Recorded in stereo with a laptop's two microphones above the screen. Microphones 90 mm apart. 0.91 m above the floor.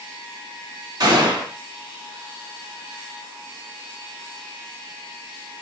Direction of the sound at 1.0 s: 45° right (ahead or behind).